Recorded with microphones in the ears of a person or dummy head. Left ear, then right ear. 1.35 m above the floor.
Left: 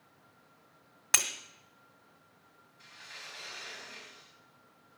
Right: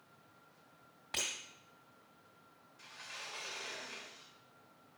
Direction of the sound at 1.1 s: 60° left (ahead or behind).